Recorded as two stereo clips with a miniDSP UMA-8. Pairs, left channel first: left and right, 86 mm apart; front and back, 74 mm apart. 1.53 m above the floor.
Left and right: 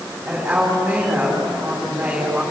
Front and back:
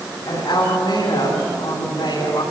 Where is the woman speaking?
15° right, 10 m.